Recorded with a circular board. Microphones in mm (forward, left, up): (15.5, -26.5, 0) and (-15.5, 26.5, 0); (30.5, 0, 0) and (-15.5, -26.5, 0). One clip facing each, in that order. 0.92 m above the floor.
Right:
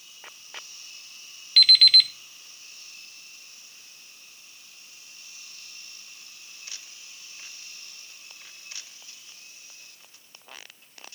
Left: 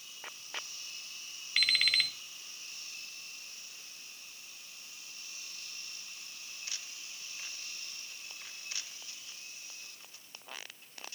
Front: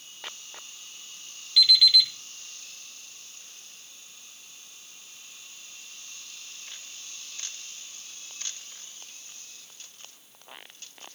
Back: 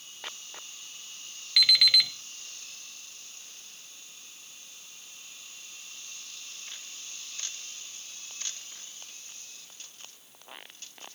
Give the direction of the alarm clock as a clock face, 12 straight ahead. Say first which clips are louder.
Right 9 dB, front 2 dB; 6 o'clock.